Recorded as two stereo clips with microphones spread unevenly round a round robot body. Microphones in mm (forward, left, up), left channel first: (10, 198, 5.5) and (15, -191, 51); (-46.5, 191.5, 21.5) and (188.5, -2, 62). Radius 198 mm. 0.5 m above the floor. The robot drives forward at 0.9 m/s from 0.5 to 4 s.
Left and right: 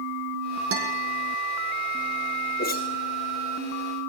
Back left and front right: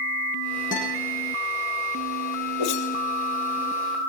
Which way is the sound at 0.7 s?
145° right.